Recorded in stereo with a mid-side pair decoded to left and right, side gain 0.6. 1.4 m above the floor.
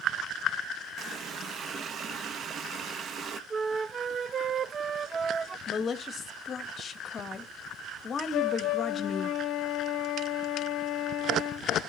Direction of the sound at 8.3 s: 55° left.